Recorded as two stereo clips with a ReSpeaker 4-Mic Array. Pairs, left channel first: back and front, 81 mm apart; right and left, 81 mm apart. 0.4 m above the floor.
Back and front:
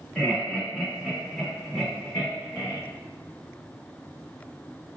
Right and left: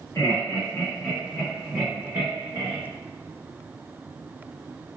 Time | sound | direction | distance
0.1 | laughter | 100° right | 1.2 m